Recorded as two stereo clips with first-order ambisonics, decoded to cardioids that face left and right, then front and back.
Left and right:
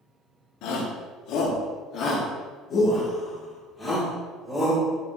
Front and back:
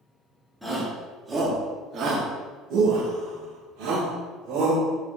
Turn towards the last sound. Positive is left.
turn(degrees=180)